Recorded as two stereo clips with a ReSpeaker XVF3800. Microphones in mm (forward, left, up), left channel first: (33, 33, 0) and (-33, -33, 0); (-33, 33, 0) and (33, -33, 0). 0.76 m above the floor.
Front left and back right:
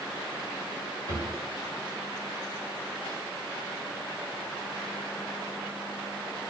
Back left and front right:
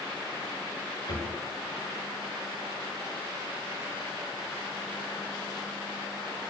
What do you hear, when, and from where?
1.1 s a drawer: 85° left, 6.5 m